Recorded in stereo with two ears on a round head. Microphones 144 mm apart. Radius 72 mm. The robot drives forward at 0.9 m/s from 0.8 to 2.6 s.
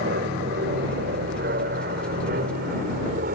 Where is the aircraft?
70° right (ahead or behind); by 3.4 s 60° right (ahead or behind).